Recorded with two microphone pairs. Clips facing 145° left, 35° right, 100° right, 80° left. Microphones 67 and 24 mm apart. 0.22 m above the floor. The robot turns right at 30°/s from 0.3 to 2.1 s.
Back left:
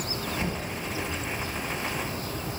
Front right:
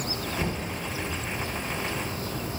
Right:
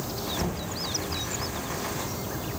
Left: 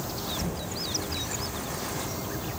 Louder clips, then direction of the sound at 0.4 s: Front right 2 dB, right 2 dB; 100° right.